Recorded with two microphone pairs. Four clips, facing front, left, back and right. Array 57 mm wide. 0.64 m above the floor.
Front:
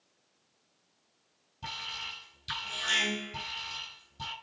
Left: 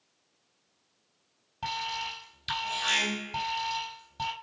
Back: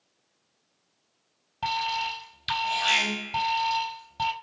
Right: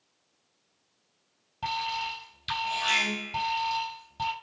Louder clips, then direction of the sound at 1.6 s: Right 3 dB, back 12 dB; 175° right.